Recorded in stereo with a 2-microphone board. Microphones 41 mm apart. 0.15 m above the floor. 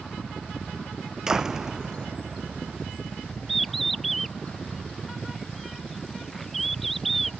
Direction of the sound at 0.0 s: 15° left (ahead or behind).